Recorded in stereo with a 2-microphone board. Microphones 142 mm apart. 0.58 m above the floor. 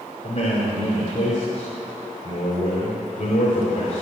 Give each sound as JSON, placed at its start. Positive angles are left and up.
{"t": 0.2, "sound": "a man speaking", "side_deg": 70, "distance_m": 2.5}